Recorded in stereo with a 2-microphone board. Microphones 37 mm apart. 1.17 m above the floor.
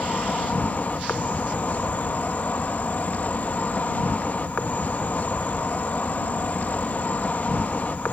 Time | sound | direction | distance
0.0 | an insect | 45° left (ahead or behind) | ?